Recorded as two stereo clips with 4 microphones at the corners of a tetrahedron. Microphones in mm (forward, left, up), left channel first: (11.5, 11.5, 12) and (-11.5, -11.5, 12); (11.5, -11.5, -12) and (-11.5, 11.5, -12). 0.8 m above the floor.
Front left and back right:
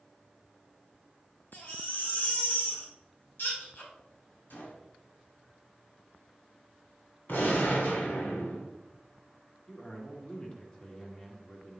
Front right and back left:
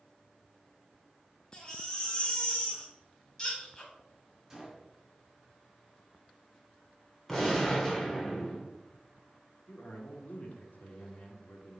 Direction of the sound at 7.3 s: 35° left.